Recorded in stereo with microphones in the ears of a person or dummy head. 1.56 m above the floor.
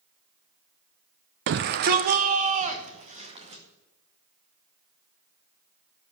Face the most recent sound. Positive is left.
turn(degrees=-35)  # may be behind; listen again after turning